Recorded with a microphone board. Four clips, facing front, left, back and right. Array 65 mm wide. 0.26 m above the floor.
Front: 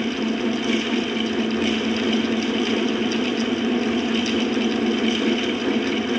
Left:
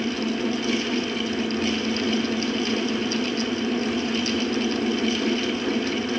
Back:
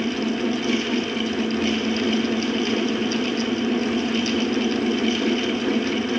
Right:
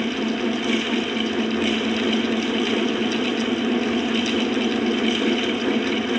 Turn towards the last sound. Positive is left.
No sound to turn to.